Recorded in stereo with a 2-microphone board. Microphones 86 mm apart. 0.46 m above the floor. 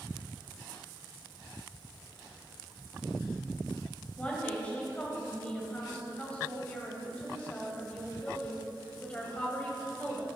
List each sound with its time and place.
4.2 s a woman speaking: 15° left (ahead or behind), 2.5 m